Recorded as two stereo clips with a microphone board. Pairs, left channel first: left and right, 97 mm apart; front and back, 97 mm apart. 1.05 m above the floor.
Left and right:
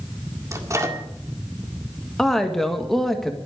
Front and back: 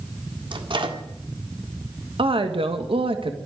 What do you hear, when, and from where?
0.5 s a microwave: 150° right, 1.8 m
2.2 s a woman speaking: 175° left, 1.5 m